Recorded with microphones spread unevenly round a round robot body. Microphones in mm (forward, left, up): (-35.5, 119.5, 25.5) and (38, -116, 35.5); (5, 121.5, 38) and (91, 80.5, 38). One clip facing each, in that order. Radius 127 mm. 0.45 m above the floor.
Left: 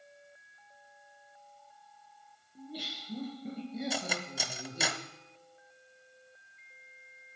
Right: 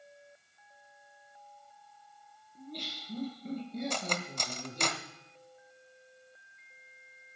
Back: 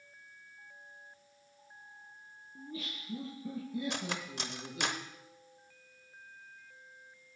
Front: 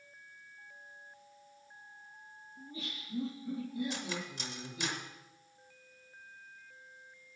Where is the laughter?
170° right, 7 m.